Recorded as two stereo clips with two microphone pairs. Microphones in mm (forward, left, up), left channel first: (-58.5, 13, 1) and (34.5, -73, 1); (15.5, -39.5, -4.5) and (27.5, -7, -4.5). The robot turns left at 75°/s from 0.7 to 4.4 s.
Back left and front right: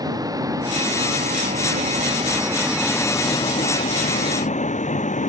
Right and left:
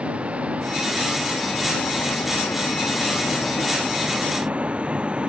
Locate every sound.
0.0 s a vehicle: 15° left; by 5.3 s 125° left